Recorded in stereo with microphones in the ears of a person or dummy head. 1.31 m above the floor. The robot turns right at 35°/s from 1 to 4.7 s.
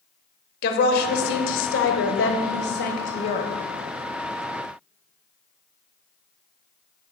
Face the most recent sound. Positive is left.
turn(degrees=-170)